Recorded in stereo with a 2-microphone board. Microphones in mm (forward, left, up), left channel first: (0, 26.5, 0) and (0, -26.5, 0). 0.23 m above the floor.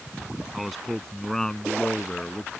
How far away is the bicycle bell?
I don't hear a bicycle bell.